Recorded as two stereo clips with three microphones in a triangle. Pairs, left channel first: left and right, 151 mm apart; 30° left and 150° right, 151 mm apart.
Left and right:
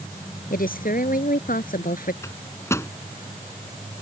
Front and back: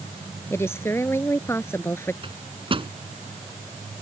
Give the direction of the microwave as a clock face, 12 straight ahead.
7 o'clock.